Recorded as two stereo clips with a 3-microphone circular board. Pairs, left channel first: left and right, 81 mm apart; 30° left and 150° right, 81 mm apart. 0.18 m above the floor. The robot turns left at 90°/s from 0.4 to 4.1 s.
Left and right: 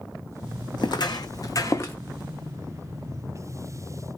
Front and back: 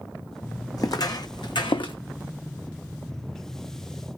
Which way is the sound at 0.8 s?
70° left.